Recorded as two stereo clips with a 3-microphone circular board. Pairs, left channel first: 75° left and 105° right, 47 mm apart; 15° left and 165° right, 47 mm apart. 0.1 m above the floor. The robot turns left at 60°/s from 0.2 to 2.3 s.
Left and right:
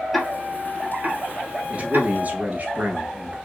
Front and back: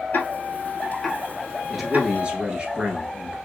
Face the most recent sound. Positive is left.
turn(degrees=-115)